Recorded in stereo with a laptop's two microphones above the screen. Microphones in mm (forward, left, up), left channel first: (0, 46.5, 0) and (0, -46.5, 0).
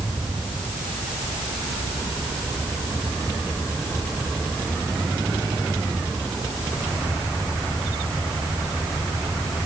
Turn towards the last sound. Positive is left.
No sound to turn to.